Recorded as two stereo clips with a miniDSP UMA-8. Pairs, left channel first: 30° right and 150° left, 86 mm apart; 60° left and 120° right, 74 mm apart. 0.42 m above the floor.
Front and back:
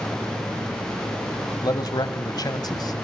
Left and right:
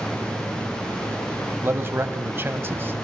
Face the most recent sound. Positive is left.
turn(degrees=-65)